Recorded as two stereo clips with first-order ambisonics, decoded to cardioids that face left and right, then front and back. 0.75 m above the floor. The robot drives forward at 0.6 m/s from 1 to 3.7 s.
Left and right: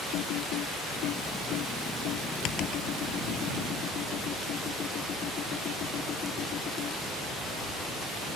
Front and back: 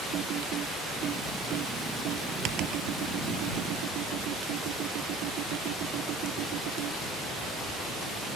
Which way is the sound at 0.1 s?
130° left.